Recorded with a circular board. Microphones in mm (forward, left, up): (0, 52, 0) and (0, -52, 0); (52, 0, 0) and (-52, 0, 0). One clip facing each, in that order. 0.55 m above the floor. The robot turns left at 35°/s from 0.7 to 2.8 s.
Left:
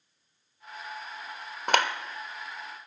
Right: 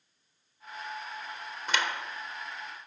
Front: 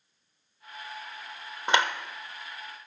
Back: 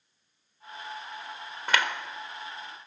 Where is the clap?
70° left, 1.1 m; by 1.9 s 60° left, 1.1 m.